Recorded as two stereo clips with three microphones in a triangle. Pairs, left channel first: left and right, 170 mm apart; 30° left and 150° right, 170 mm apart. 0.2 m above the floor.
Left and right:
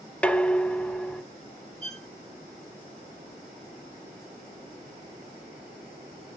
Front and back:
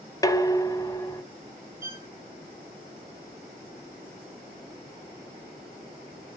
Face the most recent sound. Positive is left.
turn(degrees=135)